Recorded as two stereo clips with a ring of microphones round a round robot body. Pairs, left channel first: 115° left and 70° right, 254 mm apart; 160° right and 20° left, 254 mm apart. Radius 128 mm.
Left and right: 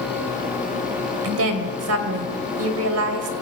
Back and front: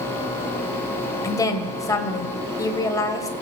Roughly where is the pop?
I don't hear a pop.